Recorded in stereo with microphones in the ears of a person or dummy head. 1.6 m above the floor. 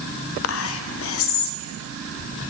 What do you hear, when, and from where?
0.4 s whispering: 75° left (ahead or behind), 0.5 m